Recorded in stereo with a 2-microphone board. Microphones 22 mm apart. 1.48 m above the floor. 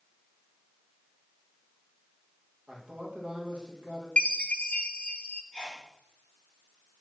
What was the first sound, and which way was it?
A man speaking, 55° right (ahead or behind).